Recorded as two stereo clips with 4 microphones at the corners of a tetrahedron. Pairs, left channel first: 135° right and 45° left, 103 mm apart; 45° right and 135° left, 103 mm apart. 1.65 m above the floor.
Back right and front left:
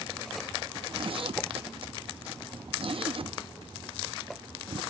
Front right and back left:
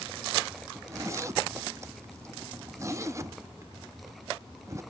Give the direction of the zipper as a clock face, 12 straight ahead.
10 o'clock.